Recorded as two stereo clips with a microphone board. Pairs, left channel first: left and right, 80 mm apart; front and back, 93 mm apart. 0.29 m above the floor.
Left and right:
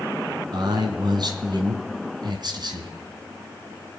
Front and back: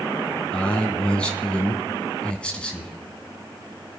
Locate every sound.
0.5 s a man speaking: 75° right, 2.5 m